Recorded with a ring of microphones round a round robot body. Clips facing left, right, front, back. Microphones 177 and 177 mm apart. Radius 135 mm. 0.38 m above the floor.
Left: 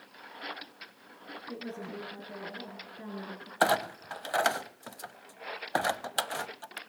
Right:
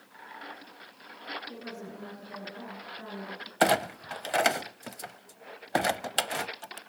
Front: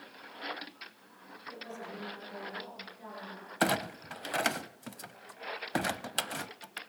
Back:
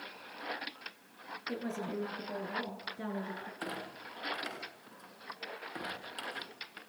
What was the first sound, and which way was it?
A woman speaking, 160° left.